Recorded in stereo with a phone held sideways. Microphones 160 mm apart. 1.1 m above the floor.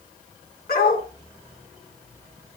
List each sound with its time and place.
0.7 s a dog barking: 70° left (ahead or behind), 5 m